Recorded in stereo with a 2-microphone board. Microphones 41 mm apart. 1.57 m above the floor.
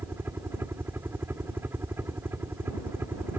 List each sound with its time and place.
0.0 s a helicopter: 75° right (ahead or behind)